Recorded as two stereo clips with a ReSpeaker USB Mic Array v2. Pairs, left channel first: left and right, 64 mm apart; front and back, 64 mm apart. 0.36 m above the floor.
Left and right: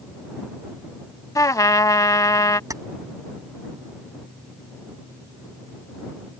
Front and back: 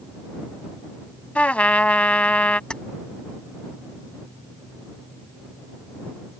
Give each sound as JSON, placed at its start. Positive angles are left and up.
{"t": 1.4, "sound": "a trumpet", "azimuth_deg": 70}
{"t": 2.7, "sound": "keys jangling", "azimuth_deg": -75}